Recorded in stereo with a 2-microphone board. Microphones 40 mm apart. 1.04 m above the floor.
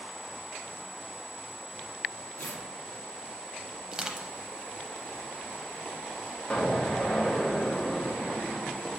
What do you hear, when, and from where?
2.4 s tearing paper: 65° left (ahead or behind), 0.8 m
3.9 s crushing: 20° right (ahead or behind), 0.6 m
6.5 s an explosion: 20° left (ahead or behind), 0.9 m